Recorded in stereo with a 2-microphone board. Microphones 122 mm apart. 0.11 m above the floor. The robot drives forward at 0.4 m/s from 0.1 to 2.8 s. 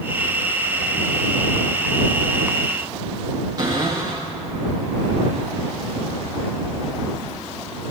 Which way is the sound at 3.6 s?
35° right (ahead or behind).